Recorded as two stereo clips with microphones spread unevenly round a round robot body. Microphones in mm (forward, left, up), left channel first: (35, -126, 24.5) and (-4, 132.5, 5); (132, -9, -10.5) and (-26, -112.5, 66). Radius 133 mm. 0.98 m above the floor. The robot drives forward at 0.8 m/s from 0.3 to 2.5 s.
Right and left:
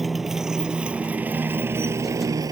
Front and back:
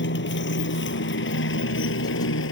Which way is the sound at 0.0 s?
10° left.